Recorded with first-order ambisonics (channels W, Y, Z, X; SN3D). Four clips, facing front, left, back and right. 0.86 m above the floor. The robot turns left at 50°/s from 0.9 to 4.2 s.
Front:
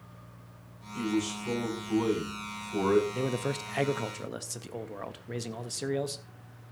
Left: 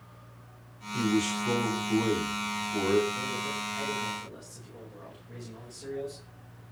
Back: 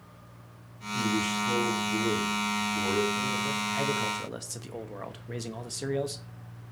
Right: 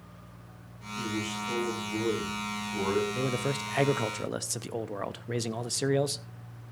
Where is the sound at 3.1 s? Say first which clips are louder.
Right 2 dB, back 2 dB; 35° right, 0.8 m; by 6.7 s 90° right, 0.8 m.